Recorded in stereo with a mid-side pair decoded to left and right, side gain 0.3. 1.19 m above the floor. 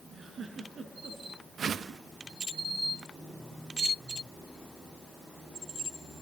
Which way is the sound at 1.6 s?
70° right.